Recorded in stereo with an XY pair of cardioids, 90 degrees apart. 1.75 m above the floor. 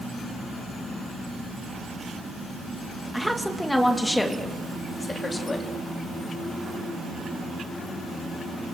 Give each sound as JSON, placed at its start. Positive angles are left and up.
{"t": 3.1, "sound": "a woman speaking", "azimuth_deg": 0, "distance_m": 1.8}